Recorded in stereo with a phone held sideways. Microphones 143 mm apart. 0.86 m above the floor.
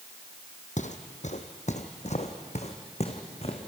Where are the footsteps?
60° left (ahead or behind), 1.7 m; by 3.6 s 45° left (ahead or behind), 3 m.